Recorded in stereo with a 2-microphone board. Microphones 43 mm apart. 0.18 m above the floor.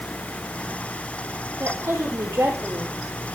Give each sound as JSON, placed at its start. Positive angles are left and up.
{"t": 1.6, "sound": "a woman speaking", "side_deg": -80, "distance_m": 5.5}